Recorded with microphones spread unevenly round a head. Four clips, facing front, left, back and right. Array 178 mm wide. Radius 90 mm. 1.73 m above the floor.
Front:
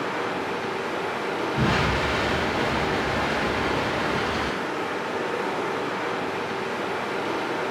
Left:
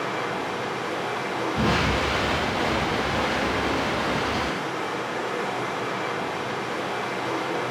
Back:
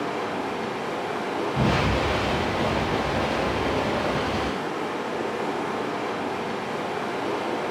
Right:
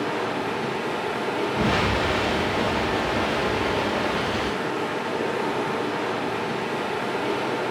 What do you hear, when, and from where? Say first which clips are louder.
0.0 s running water: right 2 dB, even; 65° right, 1.1 m
1.6 s an explosion: left 1 dB, back 1 dB; straight behind, 2 m